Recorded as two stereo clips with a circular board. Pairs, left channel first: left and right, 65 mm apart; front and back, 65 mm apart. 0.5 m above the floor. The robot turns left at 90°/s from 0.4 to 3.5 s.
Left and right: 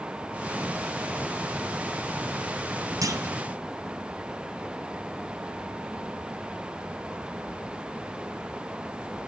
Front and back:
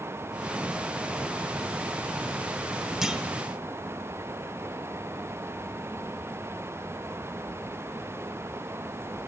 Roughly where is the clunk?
Right.